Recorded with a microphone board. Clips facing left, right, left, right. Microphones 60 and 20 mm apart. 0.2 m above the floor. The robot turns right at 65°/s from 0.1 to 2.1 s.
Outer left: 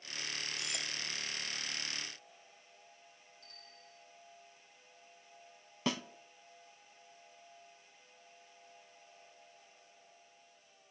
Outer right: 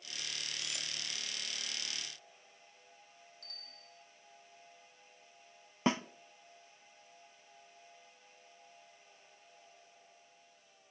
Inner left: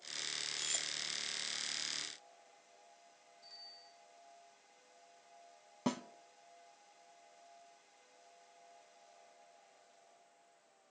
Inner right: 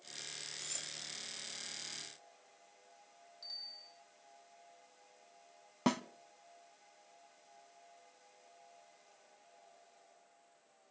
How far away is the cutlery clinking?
About 3.5 m.